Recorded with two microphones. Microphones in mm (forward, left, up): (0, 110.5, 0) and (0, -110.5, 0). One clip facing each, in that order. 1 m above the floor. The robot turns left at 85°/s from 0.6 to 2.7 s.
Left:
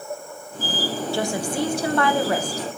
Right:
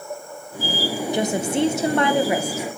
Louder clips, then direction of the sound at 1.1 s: Right 4 dB; 20° right (ahead or behind).